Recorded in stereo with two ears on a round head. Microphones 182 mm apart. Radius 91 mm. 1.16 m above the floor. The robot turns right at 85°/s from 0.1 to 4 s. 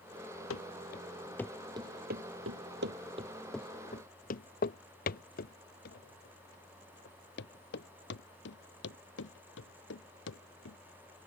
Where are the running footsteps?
80° left; by 10.8 s 70° left (ahead or behind).